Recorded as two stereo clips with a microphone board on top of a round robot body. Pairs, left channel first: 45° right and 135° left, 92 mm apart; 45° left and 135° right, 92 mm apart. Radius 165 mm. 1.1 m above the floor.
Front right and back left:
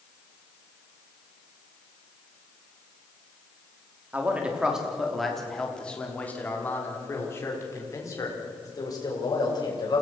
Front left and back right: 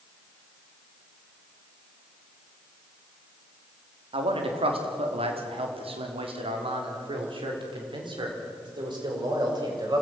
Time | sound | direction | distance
4.1 | a man speaking | 150° right | 3.5 m